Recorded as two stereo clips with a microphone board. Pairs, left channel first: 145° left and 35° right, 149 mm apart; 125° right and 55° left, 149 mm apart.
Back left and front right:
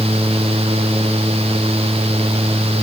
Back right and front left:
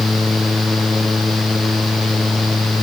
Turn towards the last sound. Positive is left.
No sound to turn to.